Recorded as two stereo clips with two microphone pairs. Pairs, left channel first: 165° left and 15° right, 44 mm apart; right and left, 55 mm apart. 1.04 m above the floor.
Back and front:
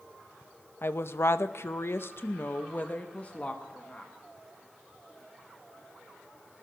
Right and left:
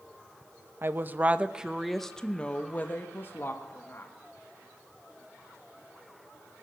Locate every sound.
0.8 s a woman speaking: 135° left, 0.8 m; by 4.1 s 130° right, 1.4 m